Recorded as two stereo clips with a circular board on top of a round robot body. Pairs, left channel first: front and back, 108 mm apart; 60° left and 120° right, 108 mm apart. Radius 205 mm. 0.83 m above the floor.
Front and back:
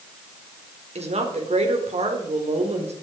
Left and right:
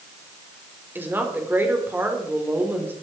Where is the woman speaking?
170° left, 4 m.